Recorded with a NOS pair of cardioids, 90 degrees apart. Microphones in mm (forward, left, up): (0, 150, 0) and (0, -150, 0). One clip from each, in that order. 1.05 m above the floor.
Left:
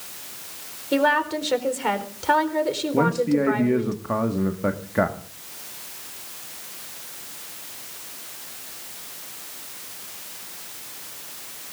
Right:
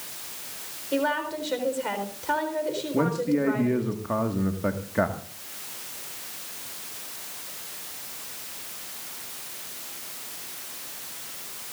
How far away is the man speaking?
About 1.7 m.